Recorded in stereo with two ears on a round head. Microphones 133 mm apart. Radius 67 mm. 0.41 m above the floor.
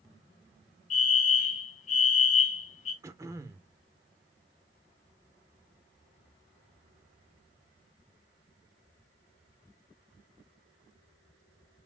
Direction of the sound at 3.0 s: 20° right (ahead or behind).